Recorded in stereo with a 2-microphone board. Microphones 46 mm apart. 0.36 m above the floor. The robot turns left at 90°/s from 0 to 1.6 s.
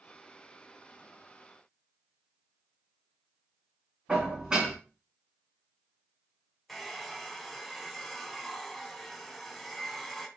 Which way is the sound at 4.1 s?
20° right (ahead or behind).